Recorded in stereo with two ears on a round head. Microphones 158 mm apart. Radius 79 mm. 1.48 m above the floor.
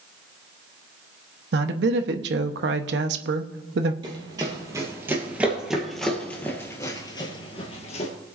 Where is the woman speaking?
65° right (ahead or behind), 0.9 m.